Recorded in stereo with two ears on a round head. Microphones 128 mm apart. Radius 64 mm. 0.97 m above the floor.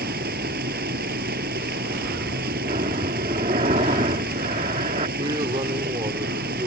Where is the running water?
70° right (ahead or behind).